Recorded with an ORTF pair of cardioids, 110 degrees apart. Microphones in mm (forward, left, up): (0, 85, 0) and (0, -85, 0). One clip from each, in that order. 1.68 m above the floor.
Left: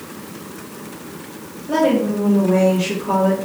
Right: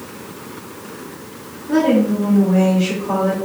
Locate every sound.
1.7 s a woman speaking: 65° left, 1.9 m; by 3.4 s 30° left, 1.7 m